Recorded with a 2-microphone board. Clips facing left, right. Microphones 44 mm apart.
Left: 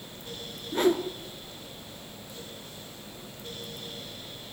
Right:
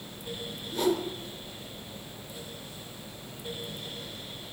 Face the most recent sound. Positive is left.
turn(degrees=40)  # may be behind; listen again after turning